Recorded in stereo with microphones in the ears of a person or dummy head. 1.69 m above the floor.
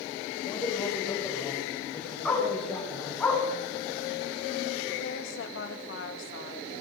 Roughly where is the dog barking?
Centre.